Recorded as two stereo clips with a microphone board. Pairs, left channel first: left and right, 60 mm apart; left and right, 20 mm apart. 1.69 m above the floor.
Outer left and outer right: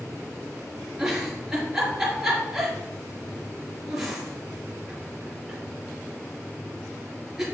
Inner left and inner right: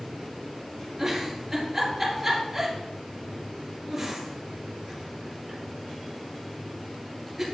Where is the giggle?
5° right (ahead or behind), 4.5 m.